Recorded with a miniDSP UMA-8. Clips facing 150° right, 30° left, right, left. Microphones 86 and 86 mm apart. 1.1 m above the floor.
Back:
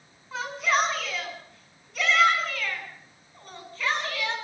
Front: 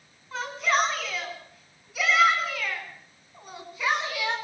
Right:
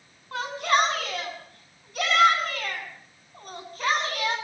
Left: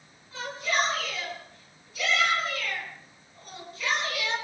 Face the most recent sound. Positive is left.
turn(degrees=-45)